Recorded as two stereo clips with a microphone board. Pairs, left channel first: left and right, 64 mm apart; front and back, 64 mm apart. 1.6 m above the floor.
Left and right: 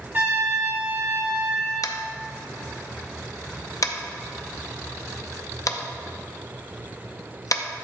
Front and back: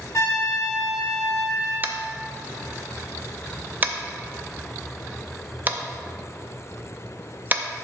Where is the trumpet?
30° right, 2.5 m.